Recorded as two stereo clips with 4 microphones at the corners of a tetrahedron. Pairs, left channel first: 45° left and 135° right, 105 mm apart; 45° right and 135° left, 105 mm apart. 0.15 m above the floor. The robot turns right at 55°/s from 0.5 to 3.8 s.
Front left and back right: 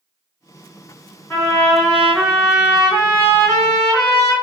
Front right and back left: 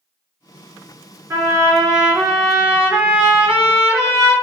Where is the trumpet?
90° left, 1.9 m; by 4.3 s 130° right, 1.9 m.